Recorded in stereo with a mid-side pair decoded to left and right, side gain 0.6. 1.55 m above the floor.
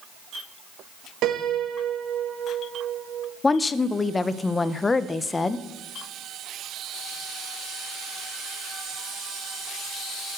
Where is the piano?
60° right, 1.6 m.